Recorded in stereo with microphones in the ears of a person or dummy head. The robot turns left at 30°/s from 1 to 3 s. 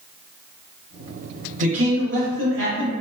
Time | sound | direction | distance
1.6 | a man speaking | 70° right | 1.5 m